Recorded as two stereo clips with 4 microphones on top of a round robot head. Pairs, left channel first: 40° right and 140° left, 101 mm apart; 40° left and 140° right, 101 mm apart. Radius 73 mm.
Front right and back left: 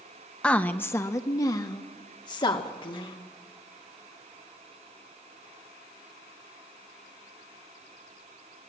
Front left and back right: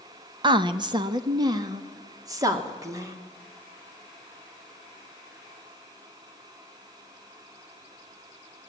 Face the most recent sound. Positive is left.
turn(degrees=-80)